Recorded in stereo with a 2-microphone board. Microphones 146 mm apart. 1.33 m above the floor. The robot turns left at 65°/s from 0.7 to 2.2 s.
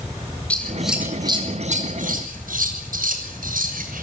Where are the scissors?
10° left (ahead or behind), 6 m; by 4.0 s 90° right, 6 m.